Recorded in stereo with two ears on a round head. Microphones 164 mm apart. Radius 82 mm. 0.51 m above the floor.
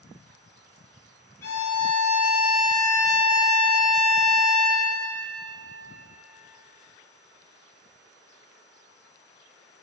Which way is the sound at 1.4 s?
15° left (ahead or behind).